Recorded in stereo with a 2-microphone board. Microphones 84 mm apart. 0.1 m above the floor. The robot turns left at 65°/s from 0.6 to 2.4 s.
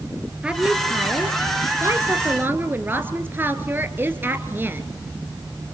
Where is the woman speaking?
20° right, 1.9 m; by 4.8 s 140° right, 1.9 m.